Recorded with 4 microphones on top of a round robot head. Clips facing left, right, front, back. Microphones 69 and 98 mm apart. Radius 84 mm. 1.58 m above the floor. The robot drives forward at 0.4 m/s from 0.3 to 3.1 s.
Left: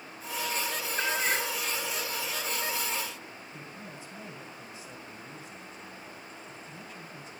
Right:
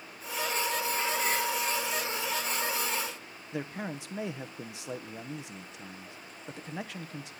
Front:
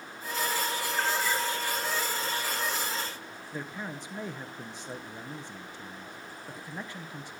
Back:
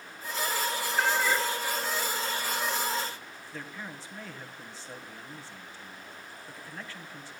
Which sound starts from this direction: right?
A man speaking, at 3.5 s.